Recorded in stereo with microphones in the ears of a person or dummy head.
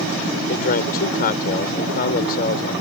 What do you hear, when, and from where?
0.5 s a man speaking: 55° left (ahead or behind)